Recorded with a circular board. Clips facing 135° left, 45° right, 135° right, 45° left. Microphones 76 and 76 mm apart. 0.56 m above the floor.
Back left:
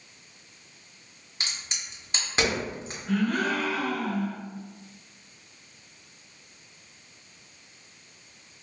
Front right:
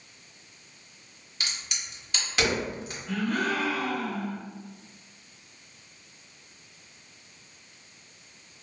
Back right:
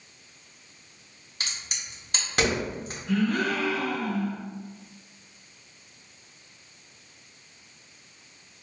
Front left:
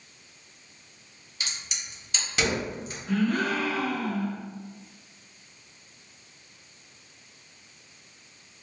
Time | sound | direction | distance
1.4 | a crack | 170° right | 0.9 m
3.1 | a gasp | 90° left | 1.1 m